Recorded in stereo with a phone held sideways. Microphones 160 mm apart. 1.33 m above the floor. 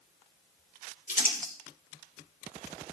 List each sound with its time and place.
1.1 s crumpling: 55° left (ahead or behind), 3.5 m